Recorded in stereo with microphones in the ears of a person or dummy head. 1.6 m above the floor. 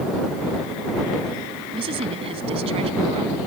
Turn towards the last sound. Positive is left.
turn(degrees=-30)  # may be behind; listen again after turning